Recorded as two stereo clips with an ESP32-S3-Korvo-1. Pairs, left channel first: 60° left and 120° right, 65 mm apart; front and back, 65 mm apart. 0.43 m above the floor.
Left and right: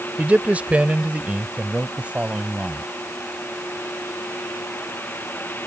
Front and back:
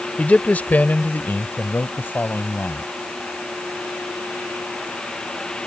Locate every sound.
0.2 s a man speaking: 60° right; by 2.8 s 55° right